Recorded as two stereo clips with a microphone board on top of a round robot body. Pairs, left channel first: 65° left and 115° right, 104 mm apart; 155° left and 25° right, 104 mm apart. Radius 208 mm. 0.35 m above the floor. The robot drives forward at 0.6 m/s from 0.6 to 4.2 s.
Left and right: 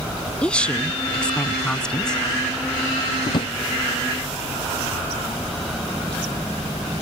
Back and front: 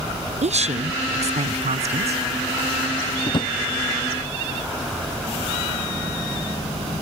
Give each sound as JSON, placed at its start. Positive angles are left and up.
{"t": 0.4, "sound": "a woman speaking", "azimuth_deg": -15}
{"t": 3.3, "sound": "a drawer", "azimuth_deg": 110}